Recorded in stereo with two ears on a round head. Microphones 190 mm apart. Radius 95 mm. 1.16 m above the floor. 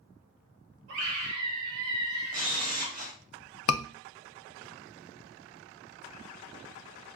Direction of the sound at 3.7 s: 70° left (ahead or behind).